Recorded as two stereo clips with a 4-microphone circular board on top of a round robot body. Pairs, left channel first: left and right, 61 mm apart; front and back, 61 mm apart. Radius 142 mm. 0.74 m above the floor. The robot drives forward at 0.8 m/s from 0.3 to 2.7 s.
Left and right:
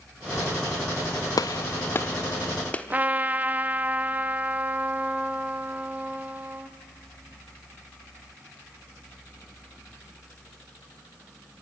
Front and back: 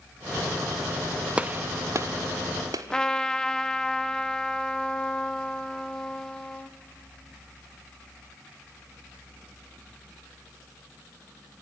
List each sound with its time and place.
1.4 s a gunshot: 110° left, 0.6 m; by 2.9 s 160° left, 1.3 m
2.9 s a trumpet: 65° right, 1.1 m